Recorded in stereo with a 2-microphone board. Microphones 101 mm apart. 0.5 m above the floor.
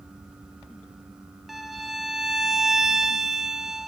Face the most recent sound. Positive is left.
turn(degrees=0)  # may be behind; listen again after turning